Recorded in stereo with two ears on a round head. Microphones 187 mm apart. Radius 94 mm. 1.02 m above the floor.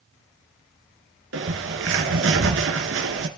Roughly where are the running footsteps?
I don't hear running footsteps.